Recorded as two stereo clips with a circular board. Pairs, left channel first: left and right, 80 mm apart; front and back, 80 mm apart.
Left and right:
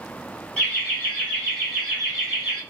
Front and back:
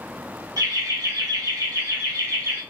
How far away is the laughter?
About 1.7 m.